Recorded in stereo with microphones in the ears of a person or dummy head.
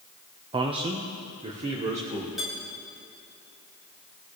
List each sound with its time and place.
0.5 s a man speaking: 25° right (ahead or behind), 0.6 m; by 2.3 s 35° right (ahead or behind), 2 m
2.4 s dishes clattering: centre (ahead or behind), 3 m